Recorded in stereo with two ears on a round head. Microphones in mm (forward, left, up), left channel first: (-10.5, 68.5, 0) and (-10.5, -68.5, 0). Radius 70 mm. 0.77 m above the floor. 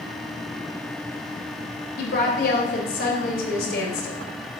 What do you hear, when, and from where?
2.0 s a woman speaking: 70° left (ahead or behind), 3 m